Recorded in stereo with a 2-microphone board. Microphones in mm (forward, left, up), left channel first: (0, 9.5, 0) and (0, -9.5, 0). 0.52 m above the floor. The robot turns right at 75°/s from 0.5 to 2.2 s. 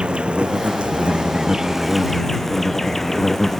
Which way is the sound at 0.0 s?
115° right.